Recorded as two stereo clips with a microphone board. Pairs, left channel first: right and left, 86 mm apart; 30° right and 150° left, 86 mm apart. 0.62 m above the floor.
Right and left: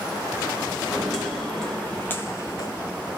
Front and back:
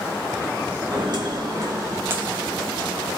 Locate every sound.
0.9 s footsteps: straight behind, 2 m; by 2.8 s 95° right, 0.8 m